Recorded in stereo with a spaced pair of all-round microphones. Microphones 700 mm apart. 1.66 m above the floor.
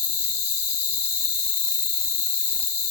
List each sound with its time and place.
0.0 s an insect: 60° left (ahead or behind), 1.0 m